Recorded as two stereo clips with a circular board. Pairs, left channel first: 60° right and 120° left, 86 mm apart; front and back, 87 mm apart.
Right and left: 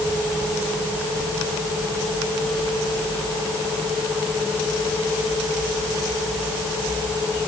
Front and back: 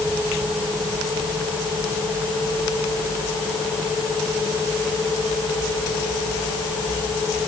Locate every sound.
Only background noise.